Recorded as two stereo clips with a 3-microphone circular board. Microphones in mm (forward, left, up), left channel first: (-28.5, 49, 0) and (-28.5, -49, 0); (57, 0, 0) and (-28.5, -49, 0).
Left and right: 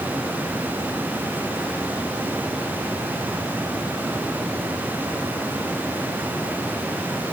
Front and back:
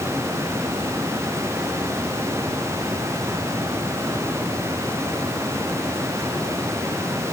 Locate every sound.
Only background noise.